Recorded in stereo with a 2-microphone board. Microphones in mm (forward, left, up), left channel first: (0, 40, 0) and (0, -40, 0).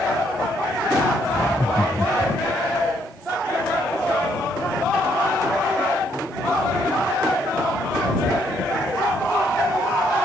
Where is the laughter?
35° left (ahead or behind).